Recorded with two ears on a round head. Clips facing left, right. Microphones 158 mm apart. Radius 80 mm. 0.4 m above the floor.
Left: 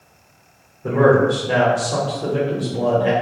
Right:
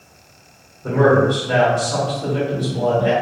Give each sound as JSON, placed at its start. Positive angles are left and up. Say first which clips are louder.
{"t": 0.8, "sound": "a man speaking", "louder": "even", "side_deg": 20, "distance_m": 1.5}